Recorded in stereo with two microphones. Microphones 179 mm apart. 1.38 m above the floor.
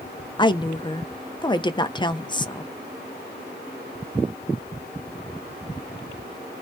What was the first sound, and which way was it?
A woman speaking, 25° left (ahead or behind).